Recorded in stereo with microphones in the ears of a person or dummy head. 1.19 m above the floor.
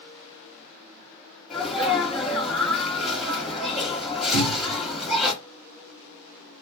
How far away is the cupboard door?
About 0.9 m.